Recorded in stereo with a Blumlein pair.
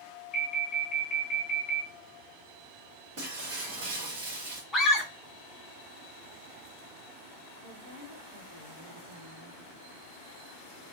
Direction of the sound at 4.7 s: Straight ahead.